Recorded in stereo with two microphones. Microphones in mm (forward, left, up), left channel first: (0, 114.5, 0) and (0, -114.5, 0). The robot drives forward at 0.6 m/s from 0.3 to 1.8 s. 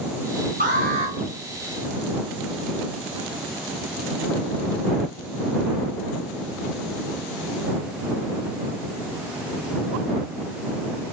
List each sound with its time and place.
0.6 s an alarm: 35° right (ahead or behind), 2 m